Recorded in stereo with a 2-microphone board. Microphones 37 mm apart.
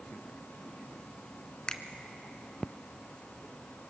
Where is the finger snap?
20° left (ahead or behind), 1.0 m.